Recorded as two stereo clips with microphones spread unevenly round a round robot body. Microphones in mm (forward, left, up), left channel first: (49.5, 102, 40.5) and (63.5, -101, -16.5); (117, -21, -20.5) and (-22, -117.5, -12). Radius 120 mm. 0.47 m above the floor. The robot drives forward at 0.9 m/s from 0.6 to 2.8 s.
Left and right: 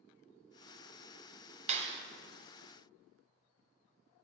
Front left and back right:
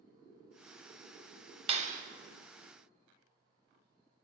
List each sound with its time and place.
1.7 s a clap: 100° right, 0.7 m; by 2.0 s 130° right, 0.8 m